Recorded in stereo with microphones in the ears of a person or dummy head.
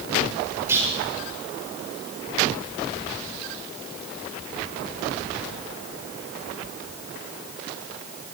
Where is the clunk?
15° right (ahead or behind), 7 m.